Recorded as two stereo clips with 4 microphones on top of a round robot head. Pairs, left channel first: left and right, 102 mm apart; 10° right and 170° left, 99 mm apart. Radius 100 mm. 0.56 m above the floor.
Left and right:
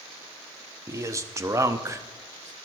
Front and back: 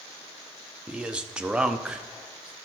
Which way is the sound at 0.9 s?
115° right.